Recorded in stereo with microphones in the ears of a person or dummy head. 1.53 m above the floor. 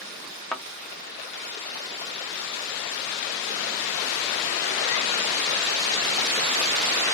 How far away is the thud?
About 1.1 m.